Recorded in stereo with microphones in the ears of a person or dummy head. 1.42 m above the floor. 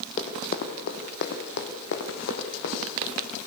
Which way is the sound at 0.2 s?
45° left (ahead or behind).